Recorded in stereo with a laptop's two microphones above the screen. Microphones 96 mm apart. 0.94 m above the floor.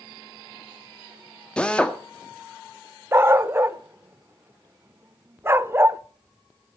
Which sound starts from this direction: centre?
A drill, at 1.6 s.